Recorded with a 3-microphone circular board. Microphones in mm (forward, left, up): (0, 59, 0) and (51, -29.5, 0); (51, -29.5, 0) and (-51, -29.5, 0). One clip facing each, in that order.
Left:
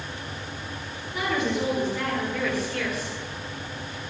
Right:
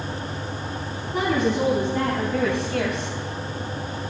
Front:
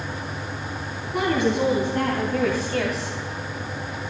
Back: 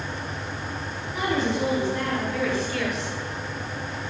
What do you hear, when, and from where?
1.1 s a woman speaking: 30° right, 5 m; by 3.2 s 50° right, 3 m